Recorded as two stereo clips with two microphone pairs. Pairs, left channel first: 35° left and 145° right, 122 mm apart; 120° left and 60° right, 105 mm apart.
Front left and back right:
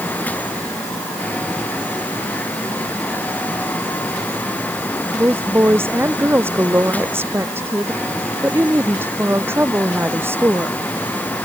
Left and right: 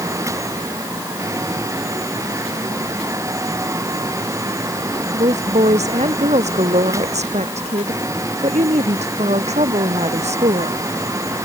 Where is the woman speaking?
70° right.